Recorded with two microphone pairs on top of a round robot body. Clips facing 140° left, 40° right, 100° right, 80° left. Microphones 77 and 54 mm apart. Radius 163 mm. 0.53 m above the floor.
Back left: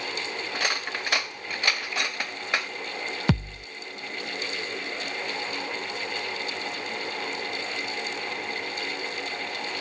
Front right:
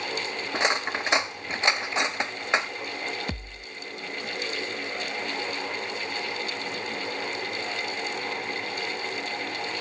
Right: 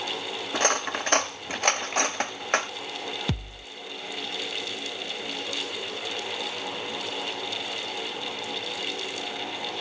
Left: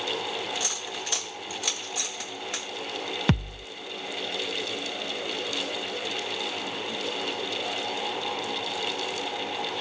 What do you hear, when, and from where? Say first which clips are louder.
0.5 s cutlery clinking: front right 5 dB, right 8 dB; 105° right
3.3 s a thud: back left 10 dB, left 6 dB; 120° left